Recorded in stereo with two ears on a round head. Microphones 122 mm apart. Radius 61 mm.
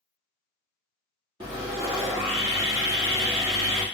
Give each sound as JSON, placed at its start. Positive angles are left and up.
{"t": 1.4, "sound": "sawing", "side_deg": -40, "distance_m": 1.4}